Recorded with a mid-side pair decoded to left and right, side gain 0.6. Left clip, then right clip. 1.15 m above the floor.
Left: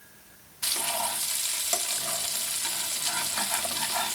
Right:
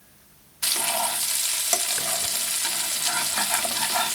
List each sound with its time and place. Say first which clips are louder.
0.6 s frying: right 4 dB; 35° right, 0.8 m